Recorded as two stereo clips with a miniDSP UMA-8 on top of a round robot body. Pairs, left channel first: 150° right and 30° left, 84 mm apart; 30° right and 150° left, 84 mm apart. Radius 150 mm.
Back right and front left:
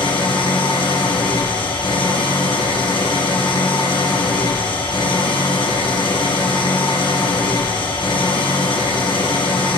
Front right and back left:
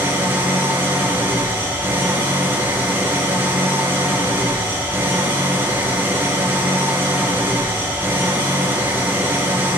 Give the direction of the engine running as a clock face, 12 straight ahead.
5 o'clock.